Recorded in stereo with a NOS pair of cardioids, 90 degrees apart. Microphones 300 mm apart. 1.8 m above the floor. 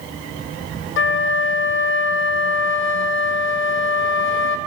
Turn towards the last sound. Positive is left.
turn(degrees=40)